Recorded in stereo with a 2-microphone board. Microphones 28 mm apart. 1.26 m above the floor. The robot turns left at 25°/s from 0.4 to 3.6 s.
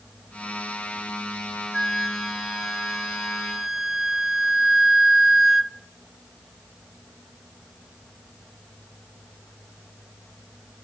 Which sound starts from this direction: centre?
A flute, at 1.7 s.